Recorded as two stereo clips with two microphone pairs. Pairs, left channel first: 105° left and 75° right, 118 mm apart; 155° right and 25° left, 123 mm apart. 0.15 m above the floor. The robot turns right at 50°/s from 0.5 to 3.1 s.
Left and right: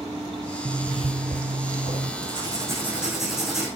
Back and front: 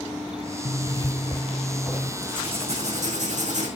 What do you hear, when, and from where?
0.7 s a zipper: 120° right, 2.5 m; by 2.1 s 50° right, 2.5 m
2.2 s writing: 35° right, 5.5 m; by 3.7 s 10° left, 5.5 m